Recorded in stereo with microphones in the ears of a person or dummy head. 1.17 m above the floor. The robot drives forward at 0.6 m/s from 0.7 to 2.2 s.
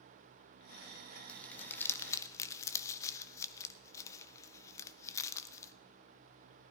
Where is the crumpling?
10° left (ahead or behind), 1.2 m; by 5.7 s 15° left (ahead or behind), 0.6 m.